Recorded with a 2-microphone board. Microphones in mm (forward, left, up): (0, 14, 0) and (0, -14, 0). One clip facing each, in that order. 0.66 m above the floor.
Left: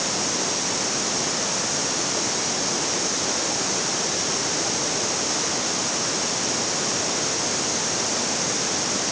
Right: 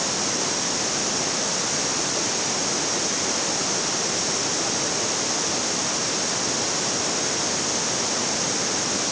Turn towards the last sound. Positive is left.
No sound to turn to.